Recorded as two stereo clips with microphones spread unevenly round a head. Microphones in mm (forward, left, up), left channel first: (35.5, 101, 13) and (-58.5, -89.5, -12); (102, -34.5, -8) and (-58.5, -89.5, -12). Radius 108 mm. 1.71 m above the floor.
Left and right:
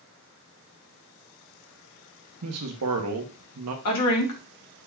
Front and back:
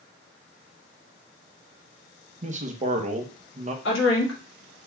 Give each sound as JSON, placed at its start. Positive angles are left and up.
{"t": 2.4, "sound": "a man speaking", "azimuth_deg": -120, "distance_m": 1.1}
{"t": 3.9, "sound": "a woman speaking", "azimuth_deg": 50, "distance_m": 1.8}